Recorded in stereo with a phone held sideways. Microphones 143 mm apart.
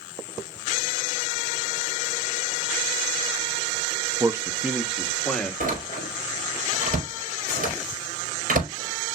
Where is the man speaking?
25° right (ahead or behind), 0.8 m; by 5.5 s 5° left (ahead or behind), 1.4 m.